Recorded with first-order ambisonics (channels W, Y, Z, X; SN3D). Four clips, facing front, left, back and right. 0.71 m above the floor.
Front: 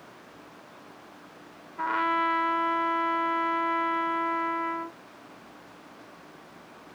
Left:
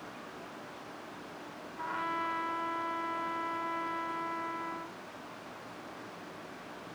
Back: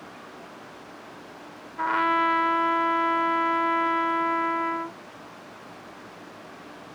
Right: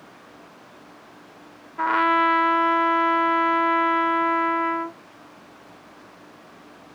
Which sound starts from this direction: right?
A trumpet, at 1.8 s.